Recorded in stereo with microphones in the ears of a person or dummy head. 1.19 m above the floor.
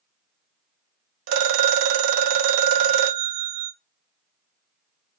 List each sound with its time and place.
1.3 s a phone ringing: 65° right (ahead or behind), 0.5 m